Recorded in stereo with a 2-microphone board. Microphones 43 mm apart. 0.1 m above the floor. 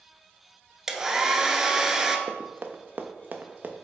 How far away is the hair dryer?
About 0.6 m.